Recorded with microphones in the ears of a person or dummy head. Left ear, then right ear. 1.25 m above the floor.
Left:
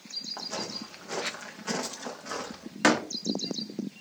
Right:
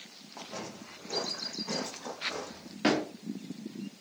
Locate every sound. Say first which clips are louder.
0.4 s footsteps: left 6 dB; 65° left (ahead or behind), 4.5 m; by 2.7 s 60° left (ahead or behind), 6 m
2.8 s a door slam: left 5 dB; 55° left (ahead or behind), 1.5 m